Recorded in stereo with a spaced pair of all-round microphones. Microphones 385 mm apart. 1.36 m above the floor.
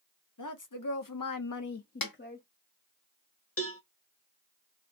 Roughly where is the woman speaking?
Left.